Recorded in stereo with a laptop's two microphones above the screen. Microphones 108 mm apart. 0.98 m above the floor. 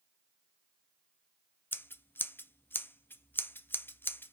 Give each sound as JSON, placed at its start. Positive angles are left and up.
{"t": 1.7, "sound": "scissors", "side_deg": 20, "distance_m": 0.6}